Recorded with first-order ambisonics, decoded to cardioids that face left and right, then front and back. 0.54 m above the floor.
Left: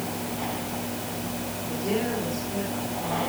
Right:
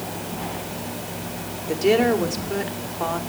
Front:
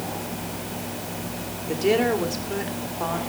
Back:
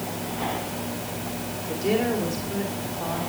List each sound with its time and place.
1.7 s a woman speaking: 60° right, 2.0 m